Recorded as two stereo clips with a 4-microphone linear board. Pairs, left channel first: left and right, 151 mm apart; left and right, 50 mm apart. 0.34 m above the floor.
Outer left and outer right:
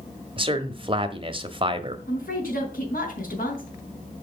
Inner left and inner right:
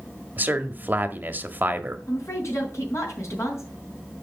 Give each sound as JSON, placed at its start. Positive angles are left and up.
{"t": 0.4, "sound": "a man speaking", "side_deg": -35, "distance_m": 1.2}
{"t": 2.1, "sound": "a woman speaking", "side_deg": 70, "distance_m": 4.0}